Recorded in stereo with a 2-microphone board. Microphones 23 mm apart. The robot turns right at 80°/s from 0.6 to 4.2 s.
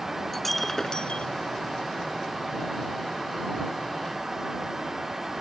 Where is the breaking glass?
10° left; by 1.3 s 60° left.